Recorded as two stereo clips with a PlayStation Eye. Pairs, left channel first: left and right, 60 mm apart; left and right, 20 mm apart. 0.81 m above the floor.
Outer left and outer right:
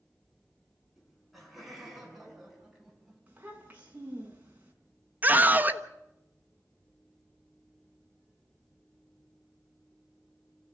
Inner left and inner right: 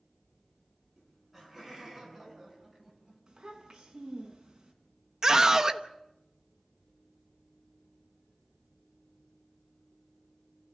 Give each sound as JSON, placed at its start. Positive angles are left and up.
{"t": 1.0, "sound": "laughter", "side_deg": -5, "distance_m": 7.5}
{"t": 3.3, "sound": "a child speaking", "side_deg": -30, "distance_m": 5.0}
{"t": 5.2, "sound": "a scream", "side_deg": -30, "distance_m": 1.1}